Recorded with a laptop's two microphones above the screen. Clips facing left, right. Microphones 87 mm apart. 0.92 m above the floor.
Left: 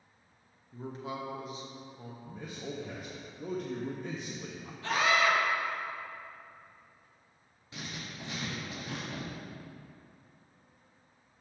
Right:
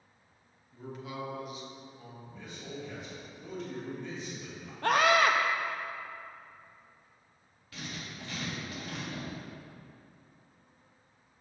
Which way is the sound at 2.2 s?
45° left (ahead or behind).